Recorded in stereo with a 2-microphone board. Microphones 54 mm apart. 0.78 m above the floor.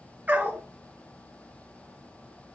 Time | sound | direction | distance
0.3 | a dog barking | 30° right (ahead or behind) | 2.5 m